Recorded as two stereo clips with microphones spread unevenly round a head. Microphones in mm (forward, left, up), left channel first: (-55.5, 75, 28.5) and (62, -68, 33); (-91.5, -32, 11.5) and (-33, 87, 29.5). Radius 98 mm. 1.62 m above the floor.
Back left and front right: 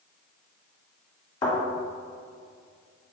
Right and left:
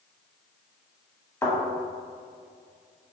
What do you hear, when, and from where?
1.4 s a thud: straight behind, 1.8 m